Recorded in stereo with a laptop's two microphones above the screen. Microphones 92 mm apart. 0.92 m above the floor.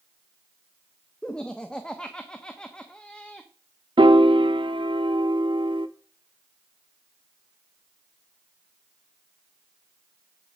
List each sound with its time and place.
1.2 s laughter: 10° left (ahead or behind), 0.9 m
4.0 s a piano: 65° right (ahead or behind), 0.7 m